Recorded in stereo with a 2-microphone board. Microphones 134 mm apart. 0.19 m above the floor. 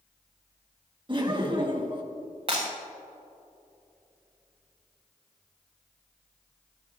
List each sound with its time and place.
1.1 s laughter: 40° right (ahead or behind), 2.5 m
2.5 s breaking glass: 45° right (ahead or behind), 6 m